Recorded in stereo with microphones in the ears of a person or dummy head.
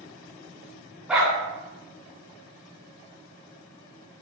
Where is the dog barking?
5° right (ahead or behind), 2.5 m.